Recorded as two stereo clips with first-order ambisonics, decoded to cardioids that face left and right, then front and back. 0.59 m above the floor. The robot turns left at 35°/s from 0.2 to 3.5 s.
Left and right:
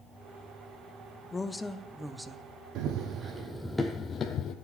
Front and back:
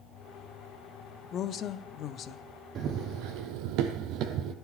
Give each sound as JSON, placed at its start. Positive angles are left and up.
{"t": 1.3, "sound": "a woman speaking", "azimuth_deg": 25, "distance_m": 0.6}
{"t": 2.8, "sound": "running footsteps", "azimuth_deg": -125, "distance_m": 1.6}